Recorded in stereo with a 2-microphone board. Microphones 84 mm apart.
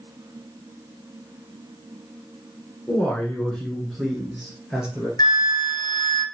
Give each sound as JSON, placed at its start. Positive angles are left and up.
{"t": 2.9, "sound": "a man speaking", "side_deg": 20, "distance_m": 1.2}
{"t": 5.2, "sound": "a flute", "side_deg": 55, "distance_m": 1.0}